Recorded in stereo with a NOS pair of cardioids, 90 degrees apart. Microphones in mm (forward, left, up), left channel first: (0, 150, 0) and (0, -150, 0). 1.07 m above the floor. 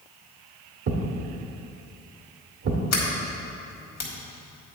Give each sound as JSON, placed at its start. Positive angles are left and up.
{"t": 0.9, "sound": "a thud", "azimuth_deg": -60, "distance_m": 1.5}
{"t": 2.9, "sound": "a sliding door", "azimuth_deg": 65, "distance_m": 1.7}